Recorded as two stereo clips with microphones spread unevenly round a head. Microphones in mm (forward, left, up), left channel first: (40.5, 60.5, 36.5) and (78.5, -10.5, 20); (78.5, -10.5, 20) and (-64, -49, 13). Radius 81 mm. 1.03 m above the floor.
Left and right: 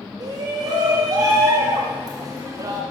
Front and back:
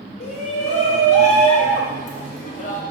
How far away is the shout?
About 3.5 m.